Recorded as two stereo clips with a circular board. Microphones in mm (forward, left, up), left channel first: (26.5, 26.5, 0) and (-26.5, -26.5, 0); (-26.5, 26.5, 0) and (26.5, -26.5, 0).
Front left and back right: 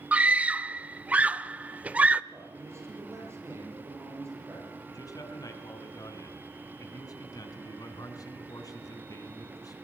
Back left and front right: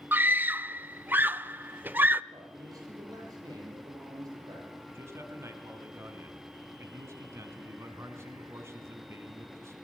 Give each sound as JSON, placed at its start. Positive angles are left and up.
{"t": 0.1, "sound": "a scream", "azimuth_deg": -80, "distance_m": 0.9}
{"t": 2.3, "sound": "a man speaking", "azimuth_deg": -80, "distance_m": 9.5}
{"t": 4.9, "sound": "a man speaking", "azimuth_deg": 10, "distance_m": 4.0}